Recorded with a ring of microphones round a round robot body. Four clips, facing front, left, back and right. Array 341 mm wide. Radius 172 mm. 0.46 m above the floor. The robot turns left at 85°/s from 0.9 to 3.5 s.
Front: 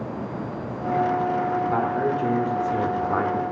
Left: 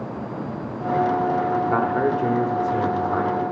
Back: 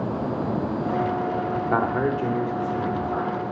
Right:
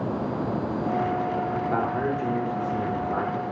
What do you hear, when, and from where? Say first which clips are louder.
1.7 s a man speaking: left 5 dB, even; 145° left, 1.0 m; by 3.4 s straight ahead, 1.0 m